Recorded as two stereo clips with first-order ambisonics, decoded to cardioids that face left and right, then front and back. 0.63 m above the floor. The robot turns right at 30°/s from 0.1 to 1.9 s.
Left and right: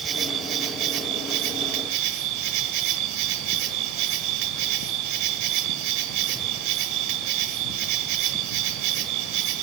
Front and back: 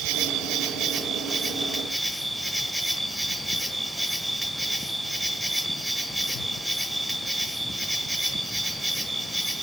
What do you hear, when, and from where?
0.0 s an insect: 150° right, 1.1 m; by 9.7 s 95° right, 1.1 m